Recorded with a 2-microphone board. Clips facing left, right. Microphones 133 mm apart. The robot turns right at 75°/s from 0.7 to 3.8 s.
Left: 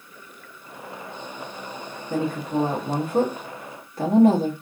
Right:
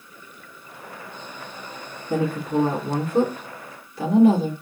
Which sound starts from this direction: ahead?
A woman speaking, at 2.1 s.